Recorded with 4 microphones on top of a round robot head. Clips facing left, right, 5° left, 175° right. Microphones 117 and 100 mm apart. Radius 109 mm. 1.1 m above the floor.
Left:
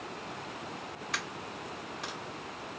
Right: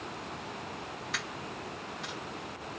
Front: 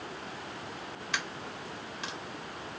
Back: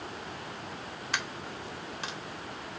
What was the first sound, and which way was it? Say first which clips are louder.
A dropped coin: left 1 dB, back 1 dB; 145° left.